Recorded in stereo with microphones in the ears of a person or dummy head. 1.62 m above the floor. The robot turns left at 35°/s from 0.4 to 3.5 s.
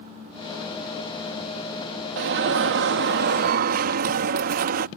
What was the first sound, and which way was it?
An alarm, 75° right.